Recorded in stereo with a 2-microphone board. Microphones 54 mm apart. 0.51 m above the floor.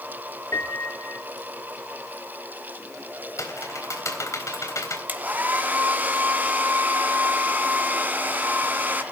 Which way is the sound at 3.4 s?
60° left (ahead or behind).